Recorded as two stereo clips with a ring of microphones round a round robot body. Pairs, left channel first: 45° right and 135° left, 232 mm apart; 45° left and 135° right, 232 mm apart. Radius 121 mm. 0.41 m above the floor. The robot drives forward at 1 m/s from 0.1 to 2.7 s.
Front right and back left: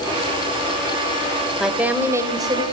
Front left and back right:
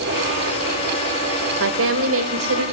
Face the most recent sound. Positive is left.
turn(degrees=-155)